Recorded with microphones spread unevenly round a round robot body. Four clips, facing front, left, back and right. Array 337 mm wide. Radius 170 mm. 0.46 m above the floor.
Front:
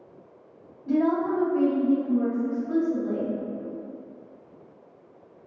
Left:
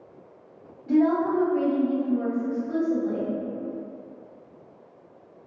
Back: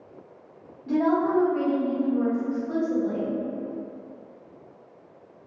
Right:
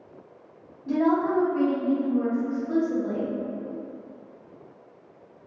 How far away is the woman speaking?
About 1.2 m.